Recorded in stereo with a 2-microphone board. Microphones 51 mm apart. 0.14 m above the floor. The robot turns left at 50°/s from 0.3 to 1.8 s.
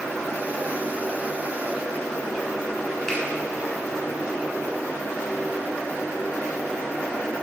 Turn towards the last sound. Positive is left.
turn(degrees=10)  # may be behind; listen again after turning